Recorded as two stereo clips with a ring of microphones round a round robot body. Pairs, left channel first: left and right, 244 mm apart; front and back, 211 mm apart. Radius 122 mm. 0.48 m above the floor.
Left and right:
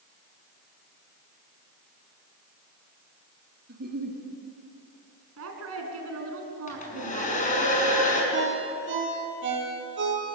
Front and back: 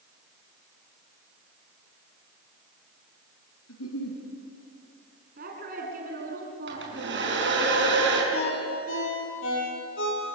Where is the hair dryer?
150° left, 5.5 m.